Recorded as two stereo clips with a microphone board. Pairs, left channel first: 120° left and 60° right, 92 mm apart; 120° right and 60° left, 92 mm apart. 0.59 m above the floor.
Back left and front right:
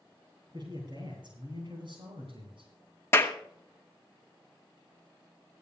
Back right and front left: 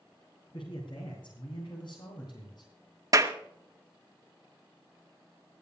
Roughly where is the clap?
Left.